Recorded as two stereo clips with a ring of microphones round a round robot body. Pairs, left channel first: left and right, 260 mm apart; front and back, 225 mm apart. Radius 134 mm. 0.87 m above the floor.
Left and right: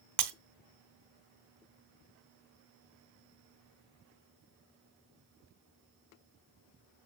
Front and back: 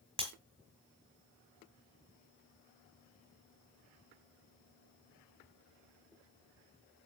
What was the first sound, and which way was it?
Breaking glass, 110° right.